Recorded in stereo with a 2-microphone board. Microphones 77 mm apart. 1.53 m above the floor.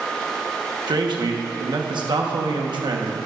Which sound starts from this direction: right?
A man speaking, at 0.9 s.